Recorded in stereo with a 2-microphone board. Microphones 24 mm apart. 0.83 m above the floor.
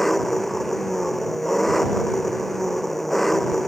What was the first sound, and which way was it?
An engine running, 10° left (ahead or behind).